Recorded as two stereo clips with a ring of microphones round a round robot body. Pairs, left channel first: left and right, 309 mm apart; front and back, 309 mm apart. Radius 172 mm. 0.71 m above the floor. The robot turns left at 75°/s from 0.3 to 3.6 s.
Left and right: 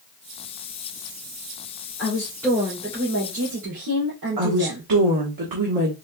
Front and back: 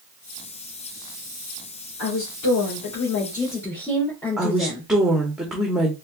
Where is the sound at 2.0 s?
40° left, 2.5 m; by 4.9 s 80° right, 2.5 m.